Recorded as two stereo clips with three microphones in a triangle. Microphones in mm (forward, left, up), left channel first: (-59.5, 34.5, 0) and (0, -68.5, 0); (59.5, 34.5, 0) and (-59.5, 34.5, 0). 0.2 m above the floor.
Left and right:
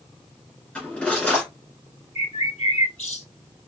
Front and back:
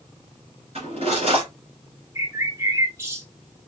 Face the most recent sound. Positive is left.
turn(degrees=115)